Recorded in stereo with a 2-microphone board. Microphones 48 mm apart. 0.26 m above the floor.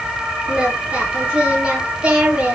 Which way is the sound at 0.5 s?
25° right (ahead or behind).